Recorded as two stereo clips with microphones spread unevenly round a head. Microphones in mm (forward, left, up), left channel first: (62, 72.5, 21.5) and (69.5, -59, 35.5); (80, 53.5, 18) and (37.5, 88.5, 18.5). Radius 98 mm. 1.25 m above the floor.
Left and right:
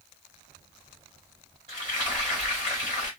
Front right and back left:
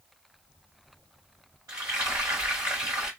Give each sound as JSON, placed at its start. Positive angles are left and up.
{"t": 1.7, "sound": "frying", "azimuth_deg": -155, "distance_m": 1.8}